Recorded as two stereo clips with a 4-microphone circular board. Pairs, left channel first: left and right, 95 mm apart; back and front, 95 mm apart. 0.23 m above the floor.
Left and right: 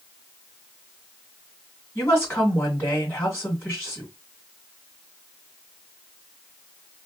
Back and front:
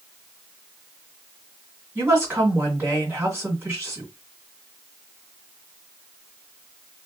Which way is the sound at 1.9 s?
35° left.